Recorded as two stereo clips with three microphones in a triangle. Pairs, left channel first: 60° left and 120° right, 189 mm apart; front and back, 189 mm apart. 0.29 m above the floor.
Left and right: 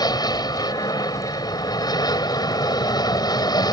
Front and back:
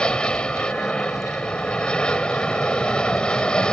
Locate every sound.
0.0 s an aircraft: 75° left